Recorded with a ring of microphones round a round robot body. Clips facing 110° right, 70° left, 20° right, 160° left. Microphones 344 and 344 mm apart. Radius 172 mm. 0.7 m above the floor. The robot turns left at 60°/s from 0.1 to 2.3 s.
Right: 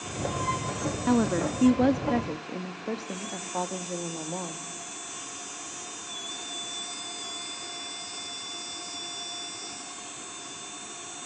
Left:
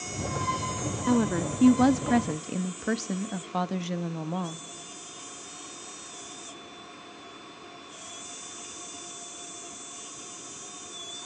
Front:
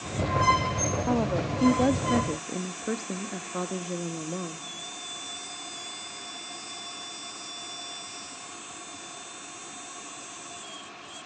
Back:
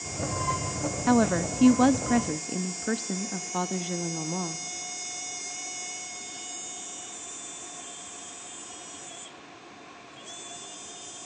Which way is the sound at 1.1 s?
160° left.